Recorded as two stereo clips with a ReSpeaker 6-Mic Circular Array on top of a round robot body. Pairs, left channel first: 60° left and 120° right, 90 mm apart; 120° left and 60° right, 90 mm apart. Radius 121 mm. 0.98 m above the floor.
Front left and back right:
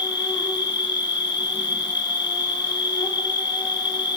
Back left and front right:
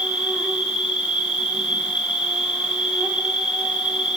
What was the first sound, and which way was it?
An insect, 20° left.